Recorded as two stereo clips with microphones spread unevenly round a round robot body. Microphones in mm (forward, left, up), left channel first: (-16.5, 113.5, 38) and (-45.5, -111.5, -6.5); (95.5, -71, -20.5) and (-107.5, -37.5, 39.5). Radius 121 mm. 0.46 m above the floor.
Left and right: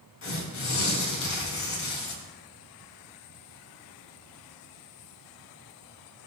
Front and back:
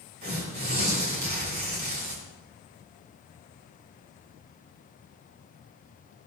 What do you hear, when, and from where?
0.2 s tearing paper: 115° left, 3.5 m